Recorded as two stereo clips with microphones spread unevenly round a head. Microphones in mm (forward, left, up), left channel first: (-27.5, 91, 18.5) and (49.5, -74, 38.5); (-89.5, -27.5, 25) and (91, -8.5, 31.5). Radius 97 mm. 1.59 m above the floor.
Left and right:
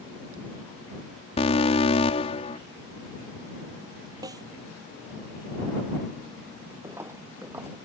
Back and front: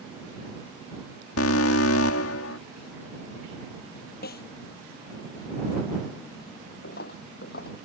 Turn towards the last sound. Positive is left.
turn(degrees=-140)